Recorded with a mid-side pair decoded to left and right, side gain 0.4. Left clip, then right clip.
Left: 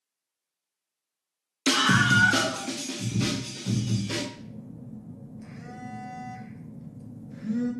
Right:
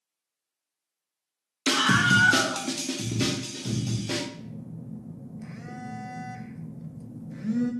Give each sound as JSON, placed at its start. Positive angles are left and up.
{"t": 1.7, "sound": "a scream", "azimuth_deg": 10, "distance_m": 0.7}
{"t": 4.3, "sound": "a phone buzzing", "azimuth_deg": -40, "distance_m": 0.6}